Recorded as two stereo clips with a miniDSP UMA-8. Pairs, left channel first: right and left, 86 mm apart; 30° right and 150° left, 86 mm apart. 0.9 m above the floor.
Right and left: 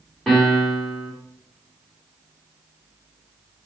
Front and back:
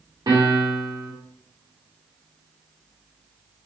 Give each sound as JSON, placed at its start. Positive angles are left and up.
{"t": 0.3, "sound": "a piano", "azimuth_deg": 180, "distance_m": 1.7}